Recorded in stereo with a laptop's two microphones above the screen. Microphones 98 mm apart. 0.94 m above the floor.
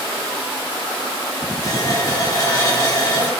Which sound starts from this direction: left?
A running tap, at 1.6 s.